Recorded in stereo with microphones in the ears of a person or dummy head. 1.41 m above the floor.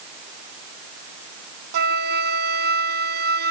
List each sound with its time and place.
1.7 s a flute: 60° right (ahead or behind)